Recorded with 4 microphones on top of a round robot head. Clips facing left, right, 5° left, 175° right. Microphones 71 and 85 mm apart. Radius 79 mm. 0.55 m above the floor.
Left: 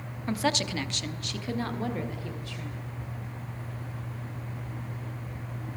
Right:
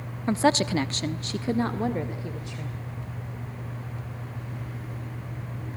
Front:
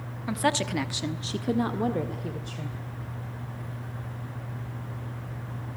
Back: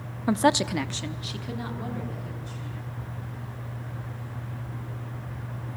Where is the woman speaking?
140° right, 1.1 m; by 2.8 s 20° right, 3 m.